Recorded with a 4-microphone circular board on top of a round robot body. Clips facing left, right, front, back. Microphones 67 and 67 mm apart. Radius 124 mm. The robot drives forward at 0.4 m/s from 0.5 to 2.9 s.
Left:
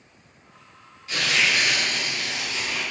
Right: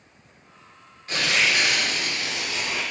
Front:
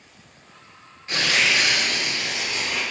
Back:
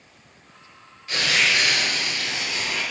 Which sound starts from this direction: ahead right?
Tearing paper, at 1.1 s.